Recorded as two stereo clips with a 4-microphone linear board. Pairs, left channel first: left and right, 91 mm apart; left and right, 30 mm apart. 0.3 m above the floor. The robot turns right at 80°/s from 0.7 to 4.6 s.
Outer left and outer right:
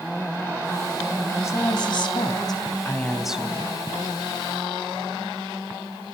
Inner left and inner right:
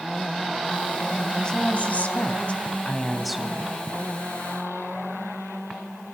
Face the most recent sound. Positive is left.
turn(degrees=-70)